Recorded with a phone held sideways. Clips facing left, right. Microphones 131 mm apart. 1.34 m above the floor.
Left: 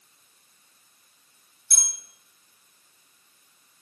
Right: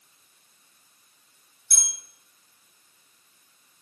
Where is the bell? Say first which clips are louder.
Left 1 dB; 5° right (ahead or behind), 0.8 m.